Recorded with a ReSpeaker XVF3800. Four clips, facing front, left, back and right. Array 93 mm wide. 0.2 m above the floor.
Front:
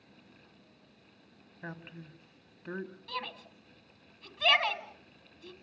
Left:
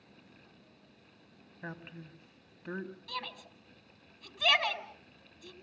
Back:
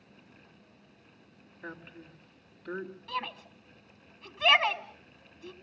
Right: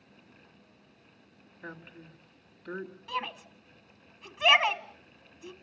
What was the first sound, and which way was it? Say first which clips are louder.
A woman speaking: even, even; 45° left.